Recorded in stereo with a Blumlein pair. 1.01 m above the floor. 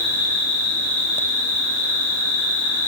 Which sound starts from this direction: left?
An insect, at 0.0 s.